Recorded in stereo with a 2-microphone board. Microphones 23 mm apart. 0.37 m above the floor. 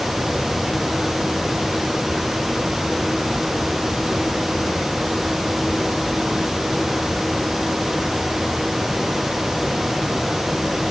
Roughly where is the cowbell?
No cowbell in this recording.